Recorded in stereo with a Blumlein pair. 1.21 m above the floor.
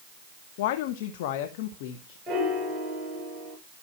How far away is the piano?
About 8 m.